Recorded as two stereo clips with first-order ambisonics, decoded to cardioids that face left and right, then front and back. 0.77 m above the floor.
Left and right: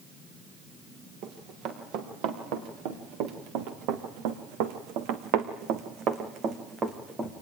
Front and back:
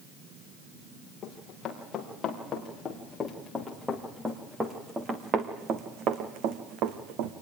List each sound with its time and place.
1.2 s running footsteps: 65° right, 6 m; by 7.3 s 170° right, 3 m